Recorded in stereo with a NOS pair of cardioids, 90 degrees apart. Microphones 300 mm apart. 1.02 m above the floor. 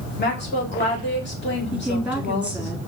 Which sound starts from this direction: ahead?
A woman speaking, at 1.7 s.